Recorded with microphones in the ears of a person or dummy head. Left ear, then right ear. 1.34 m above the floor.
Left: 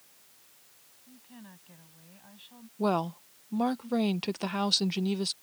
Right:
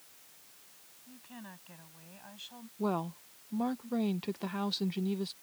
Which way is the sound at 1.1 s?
35° right (ahead or behind).